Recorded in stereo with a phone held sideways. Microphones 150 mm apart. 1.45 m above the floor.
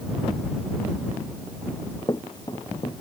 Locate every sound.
1.7 s running footsteps: 25° left (ahead or behind); by 2.9 s 30° left (ahead or behind)